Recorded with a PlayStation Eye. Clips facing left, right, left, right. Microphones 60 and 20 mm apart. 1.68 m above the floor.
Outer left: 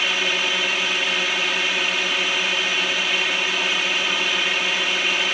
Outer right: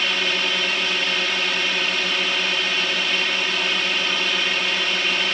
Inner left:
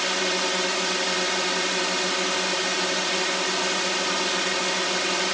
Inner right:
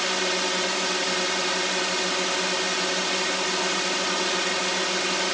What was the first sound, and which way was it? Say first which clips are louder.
A drone: even, inner left 1 dB; 5° left (ahead or behind).